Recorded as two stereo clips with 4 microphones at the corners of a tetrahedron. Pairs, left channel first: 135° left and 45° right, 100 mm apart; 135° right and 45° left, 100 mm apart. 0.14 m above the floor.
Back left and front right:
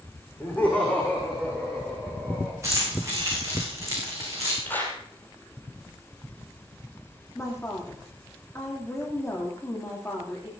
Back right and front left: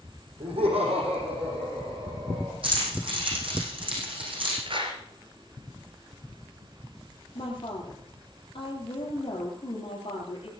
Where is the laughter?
60° left, 6 m; by 2.5 s 45° left, 6.5 m.